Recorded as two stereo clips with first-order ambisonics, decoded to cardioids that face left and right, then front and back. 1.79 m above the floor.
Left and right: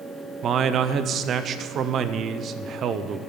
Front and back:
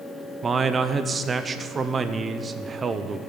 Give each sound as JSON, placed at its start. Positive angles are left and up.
{"t": 0.4, "sound": "a man speaking", "azimuth_deg": -120, "distance_m": 0.6}